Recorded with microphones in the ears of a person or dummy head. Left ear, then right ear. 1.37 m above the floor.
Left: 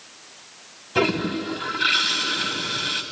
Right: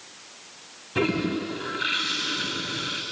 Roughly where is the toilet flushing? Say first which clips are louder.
Left 3 dB; left.